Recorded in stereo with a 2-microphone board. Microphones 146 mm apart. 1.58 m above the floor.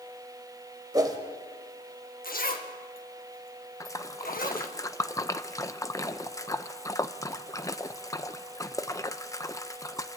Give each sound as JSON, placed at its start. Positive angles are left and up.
{"t": 0.9, "sound": "a whoosh", "side_deg": -25, "distance_m": 2.0}
{"t": 2.2, "sound": "a zipper", "side_deg": 80, "distance_m": 1.7}
{"t": 3.8, "sound": "a splash", "side_deg": 20, "distance_m": 0.7}